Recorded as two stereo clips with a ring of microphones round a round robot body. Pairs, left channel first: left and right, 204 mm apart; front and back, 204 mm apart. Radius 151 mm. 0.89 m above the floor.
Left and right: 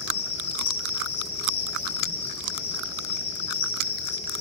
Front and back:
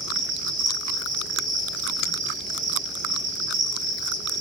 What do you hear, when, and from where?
0.0 s an insect: 155° left, 3.5 m